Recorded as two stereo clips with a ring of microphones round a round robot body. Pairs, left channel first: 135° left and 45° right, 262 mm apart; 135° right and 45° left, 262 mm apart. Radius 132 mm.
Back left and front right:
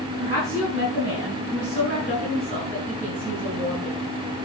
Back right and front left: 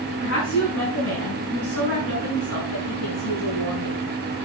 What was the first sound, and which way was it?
A woman speaking, 85° right.